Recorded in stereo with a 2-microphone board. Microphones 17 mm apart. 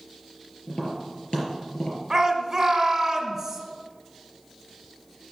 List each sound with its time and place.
0.7 s tapping: 65° left (ahead or behind), 4 m
2.1 s a shout: 35° right (ahead or behind), 1.4 m